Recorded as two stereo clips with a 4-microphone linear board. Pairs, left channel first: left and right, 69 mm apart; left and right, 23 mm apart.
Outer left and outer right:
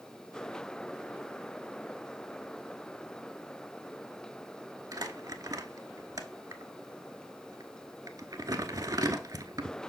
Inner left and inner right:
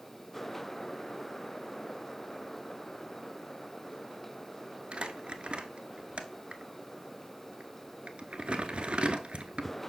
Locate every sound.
4.9 s crumpling: 65° right (ahead or behind), 0.7 m